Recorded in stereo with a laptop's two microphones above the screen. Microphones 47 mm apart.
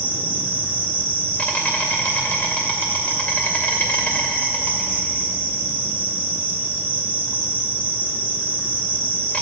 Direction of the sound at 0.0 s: 35° left (ahead or behind).